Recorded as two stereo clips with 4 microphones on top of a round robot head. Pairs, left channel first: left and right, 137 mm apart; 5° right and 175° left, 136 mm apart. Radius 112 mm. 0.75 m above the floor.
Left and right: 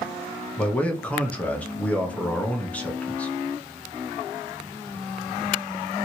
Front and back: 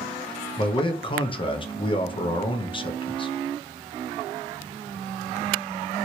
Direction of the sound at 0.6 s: 15° left.